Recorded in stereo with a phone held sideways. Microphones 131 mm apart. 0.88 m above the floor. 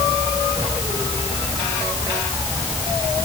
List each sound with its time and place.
Only background noise.